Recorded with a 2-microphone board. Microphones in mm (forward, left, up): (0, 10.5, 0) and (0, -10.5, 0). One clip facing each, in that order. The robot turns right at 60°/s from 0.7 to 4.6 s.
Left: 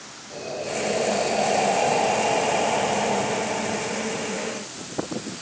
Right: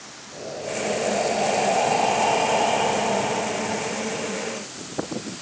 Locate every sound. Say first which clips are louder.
0.3 s breathing: left 1 dB; 135° left, 3.5 m; by 3.9 s 35° right, 3.5 m